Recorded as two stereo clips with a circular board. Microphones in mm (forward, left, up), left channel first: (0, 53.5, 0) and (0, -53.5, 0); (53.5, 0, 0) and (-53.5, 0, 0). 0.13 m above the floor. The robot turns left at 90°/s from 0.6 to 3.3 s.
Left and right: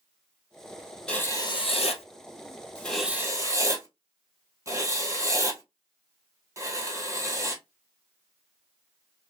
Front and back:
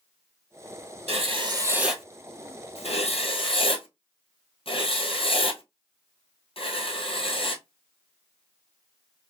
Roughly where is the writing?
Behind.